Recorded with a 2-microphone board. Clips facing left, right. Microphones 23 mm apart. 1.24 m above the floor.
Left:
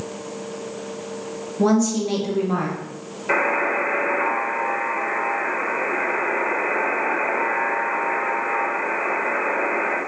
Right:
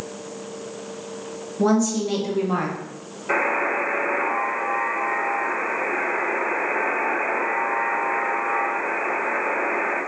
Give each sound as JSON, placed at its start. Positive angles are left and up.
{"t": 1.6, "sound": "a woman speaking", "side_deg": 30, "distance_m": 1.2}
{"t": 3.3, "sound": "a buzzer", "side_deg": 30, "distance_m": 1.0}